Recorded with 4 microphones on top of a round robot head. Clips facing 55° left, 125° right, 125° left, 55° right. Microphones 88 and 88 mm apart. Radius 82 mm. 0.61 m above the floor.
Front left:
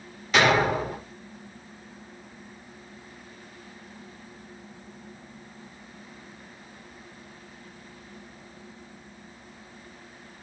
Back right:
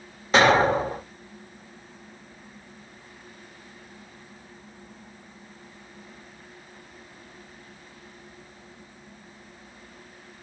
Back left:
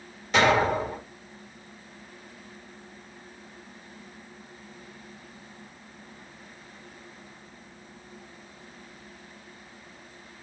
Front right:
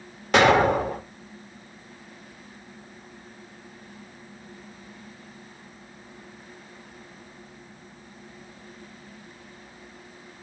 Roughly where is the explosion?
Right.